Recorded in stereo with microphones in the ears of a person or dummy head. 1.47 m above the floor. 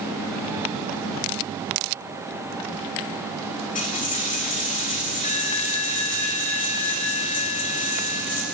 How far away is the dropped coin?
About 3 m.